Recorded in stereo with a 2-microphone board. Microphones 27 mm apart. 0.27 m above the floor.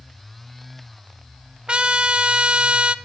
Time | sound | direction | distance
1.7 | a trumpet | 40° right (ahead or behind) | 0.6 m